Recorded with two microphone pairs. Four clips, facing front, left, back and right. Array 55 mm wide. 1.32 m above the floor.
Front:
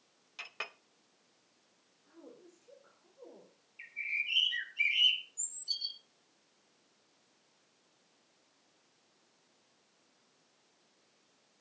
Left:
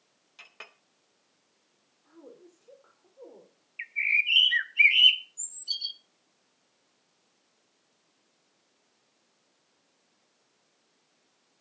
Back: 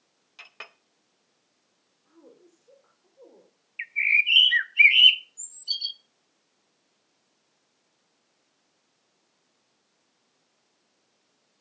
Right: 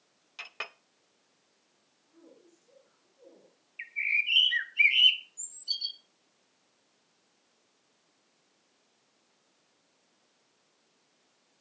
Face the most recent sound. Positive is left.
turn(degrees=165)